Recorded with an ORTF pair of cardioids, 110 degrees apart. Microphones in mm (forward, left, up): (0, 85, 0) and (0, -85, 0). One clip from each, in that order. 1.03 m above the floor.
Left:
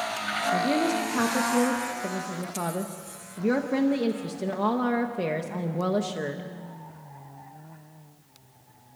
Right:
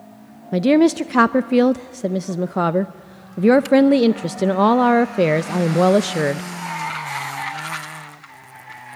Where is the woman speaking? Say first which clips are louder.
Right 12 dB; 55° right, 0.5 m.